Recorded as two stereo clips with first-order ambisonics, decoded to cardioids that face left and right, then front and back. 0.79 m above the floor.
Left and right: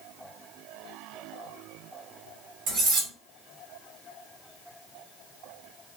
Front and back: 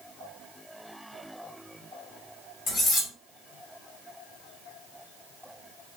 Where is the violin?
No violin in this recording.